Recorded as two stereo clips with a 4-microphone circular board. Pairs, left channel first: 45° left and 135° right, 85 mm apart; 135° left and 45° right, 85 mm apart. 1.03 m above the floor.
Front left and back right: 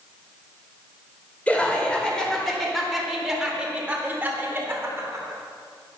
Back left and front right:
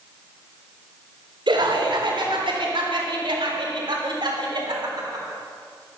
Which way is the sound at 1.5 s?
30° right.